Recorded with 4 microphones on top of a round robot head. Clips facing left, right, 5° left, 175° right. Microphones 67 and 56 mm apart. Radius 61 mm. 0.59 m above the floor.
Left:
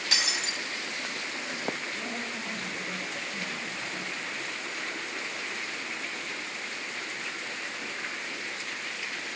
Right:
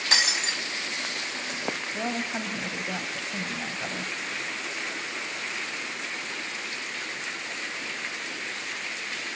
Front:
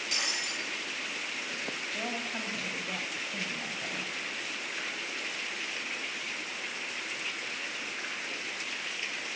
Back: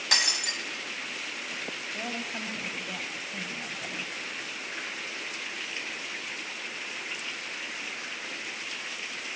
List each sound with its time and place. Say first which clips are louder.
0.1 s breaking glass: right 5 dB, back 7 dB; 150° right, 3 m
1.9 s a woman speaking: right 5 dB, back 1 dB; 85° right, 3.5 m